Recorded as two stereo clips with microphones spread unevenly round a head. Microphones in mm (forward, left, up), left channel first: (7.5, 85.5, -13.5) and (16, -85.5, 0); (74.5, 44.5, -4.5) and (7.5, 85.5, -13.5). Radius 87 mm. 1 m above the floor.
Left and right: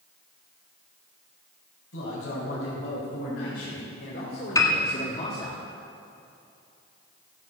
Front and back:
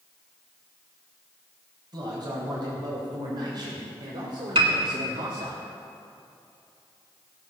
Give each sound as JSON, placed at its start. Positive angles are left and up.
{"t": 1.9, "sound": "a man speaking", "azimuth_deg": 120, "distance_m": 5.0}
{"t": 4.5, "sound": "a piano", "azimuth_deg": 165, "distance_m": 1.6}